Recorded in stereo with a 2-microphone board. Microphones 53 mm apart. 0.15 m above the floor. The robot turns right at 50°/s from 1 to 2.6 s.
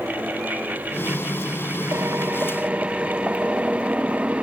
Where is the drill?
55° right; by 4.4 s 20° right.